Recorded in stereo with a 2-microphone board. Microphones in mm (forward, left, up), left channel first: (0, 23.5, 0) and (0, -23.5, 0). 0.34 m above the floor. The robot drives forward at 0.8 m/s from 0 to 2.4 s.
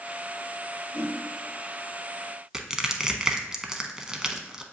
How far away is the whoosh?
About 1.6 m.